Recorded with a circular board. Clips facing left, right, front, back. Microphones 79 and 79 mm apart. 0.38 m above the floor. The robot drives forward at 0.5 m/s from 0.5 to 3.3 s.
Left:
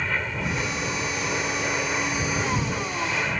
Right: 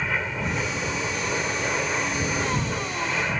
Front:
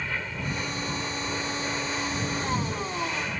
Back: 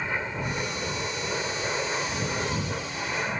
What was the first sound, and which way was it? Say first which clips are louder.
An aircraft: right 1 dB, back 2 dB; 165° right.